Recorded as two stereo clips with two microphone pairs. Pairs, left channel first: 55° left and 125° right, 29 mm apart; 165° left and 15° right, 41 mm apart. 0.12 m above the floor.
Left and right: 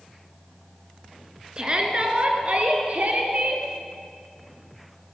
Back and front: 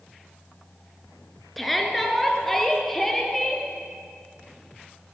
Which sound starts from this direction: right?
A shout, at 1.6 s.